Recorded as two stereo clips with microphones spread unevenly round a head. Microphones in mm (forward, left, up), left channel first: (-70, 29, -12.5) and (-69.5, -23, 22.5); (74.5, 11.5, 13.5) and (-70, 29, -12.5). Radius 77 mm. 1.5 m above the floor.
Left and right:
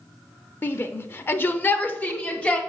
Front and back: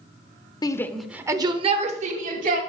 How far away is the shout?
About 0.7 m.